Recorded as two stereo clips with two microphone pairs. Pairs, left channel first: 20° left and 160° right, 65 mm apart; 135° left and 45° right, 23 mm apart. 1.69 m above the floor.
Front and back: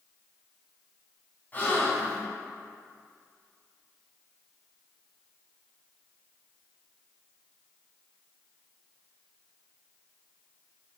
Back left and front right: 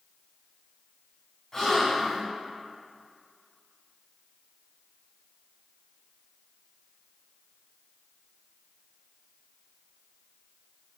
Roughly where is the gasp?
Left.